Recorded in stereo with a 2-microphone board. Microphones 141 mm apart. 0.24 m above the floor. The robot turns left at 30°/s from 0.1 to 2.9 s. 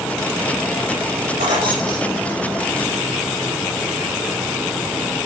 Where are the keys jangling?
45° right (ahead or behind), 6 m; by 2.7 s 5° right (ahead or behind), 6 m.